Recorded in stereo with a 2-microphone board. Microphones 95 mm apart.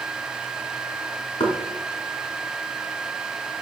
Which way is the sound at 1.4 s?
80° left.